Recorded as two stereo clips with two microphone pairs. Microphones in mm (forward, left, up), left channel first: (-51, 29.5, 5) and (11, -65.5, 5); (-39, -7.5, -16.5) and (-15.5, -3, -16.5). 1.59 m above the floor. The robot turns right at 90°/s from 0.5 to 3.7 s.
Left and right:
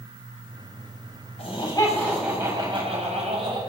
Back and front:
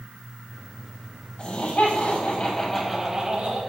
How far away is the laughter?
About 7 m.